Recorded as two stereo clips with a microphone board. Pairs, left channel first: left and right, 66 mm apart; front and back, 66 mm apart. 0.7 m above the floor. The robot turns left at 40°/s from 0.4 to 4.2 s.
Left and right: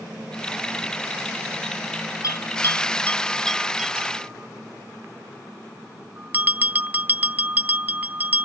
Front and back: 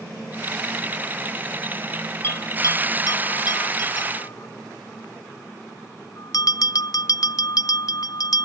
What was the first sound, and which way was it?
A bell, 55° left.